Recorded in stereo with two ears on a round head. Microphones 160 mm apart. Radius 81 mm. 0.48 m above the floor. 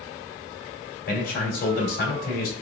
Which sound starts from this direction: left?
A man speaking, at 1.1 s.